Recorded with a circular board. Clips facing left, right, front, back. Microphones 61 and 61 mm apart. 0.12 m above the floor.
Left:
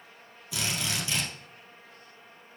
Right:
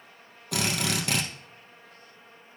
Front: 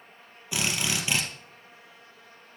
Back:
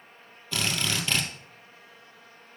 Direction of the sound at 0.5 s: 75° right.